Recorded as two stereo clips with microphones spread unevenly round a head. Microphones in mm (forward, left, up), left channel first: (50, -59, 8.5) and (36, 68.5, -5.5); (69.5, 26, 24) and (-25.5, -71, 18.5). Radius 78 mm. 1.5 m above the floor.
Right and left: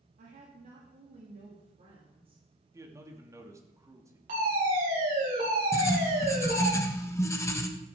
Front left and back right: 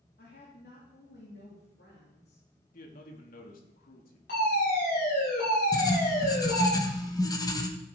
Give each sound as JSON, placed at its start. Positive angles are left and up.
{"t": 0.2, "sound": "a woman speaking", "azimuth_deg": 80, "distance_m": 2.5}
{"t": 2.7, "sound": "a man speaking", "azimuth_deg": 30, "distance_m": 2.5}
{"t": 4.3, "sound": "a fire alarm", "azimuth_deg": 80, "distance_m": 8.0}
{"t": 5.7, "sound": "writing", "azimuth_deg": -15, "distance_m": 1.4}